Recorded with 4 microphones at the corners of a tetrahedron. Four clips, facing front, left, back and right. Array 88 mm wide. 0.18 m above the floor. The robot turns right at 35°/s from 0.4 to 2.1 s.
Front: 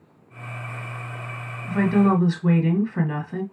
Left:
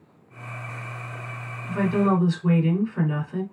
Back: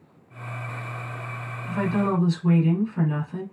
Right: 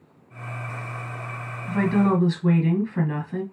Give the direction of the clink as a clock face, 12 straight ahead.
I don't hear a clink.